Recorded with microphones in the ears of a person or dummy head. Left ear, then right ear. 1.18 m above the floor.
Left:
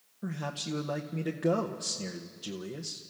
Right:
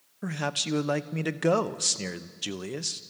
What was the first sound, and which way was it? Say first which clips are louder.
A man speaking: right 7 dB; 60° right (ahead or behind).